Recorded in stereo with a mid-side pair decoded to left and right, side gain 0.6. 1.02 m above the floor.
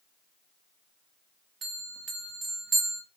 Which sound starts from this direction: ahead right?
A bell, at 1.6 s.